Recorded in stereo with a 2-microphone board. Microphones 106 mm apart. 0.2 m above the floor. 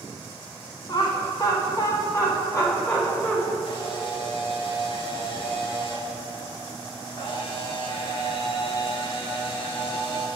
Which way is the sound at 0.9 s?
40° left (ahead or behind).